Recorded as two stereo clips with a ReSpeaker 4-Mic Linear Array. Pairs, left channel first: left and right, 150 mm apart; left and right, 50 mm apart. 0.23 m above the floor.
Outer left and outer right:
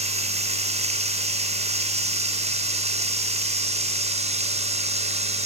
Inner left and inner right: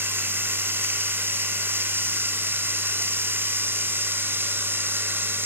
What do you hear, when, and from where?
0.0 s running water: 50° right (ahead or behind), 2.5 m